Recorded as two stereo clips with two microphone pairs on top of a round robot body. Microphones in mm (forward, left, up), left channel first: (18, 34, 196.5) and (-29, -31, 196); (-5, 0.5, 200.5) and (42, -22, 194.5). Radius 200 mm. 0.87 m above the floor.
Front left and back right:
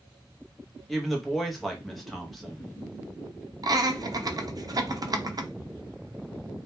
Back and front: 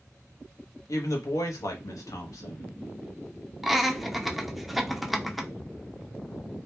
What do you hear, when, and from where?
0.9 s a woman speaking: 145° left, 0.7 m
3.6 s laughter: 105° right, 0.7 m